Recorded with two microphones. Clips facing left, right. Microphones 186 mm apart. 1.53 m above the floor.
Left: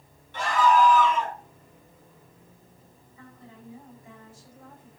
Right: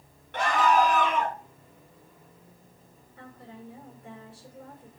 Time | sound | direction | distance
0.3 | a scream | 65° right (ahead or behind) | 4 m
3.2 | a woman speaking | 75° right (ahead or behind) | 6 m